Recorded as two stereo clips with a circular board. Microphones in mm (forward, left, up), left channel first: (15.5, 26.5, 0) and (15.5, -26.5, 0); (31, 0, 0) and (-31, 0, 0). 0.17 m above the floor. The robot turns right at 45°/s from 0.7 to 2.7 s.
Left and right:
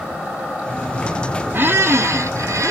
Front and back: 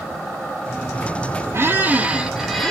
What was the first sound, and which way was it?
A squeak, 135° right.